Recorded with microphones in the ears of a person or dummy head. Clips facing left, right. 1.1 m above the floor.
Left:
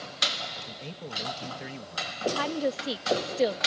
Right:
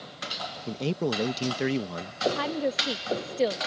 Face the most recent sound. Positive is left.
turn(degrees=-5)  # may be behind; listen again after turning